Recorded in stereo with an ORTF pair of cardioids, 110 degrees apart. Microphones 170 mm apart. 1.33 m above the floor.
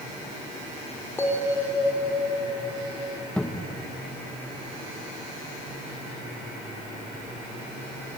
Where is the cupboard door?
5° left, 1.7 m.